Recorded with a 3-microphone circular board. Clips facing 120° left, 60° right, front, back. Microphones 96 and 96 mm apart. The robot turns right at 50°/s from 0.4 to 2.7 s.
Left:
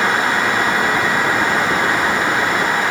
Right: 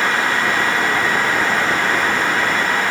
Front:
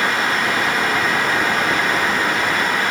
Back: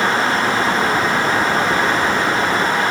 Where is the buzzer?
I don't hear a buzzer.